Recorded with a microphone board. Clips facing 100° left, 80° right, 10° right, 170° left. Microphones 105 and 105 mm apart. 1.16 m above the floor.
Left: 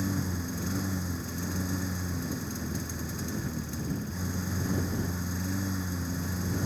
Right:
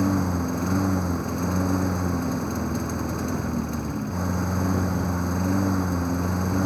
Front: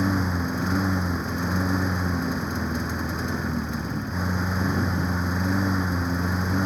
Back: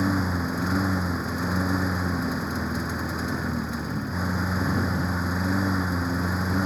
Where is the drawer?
No drawer in this recording.